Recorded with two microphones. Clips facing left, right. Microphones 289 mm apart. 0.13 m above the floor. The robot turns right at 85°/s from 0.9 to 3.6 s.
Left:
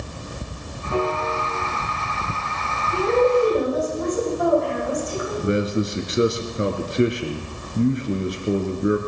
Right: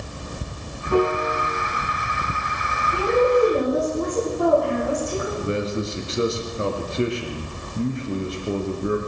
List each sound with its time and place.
0.9 s a piano: 50° right, 4 m; by 1.5 s straight ahead, 4 m
2.9 s a woman speaking: 170° left, 10 m; by 5.3 s 130° right, 10 m
5.4 s a man speaking: 20° left (ahead or behind), 1.9 m